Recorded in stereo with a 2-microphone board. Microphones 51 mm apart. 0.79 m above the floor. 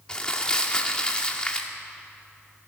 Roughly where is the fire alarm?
No fire alarm in this recording.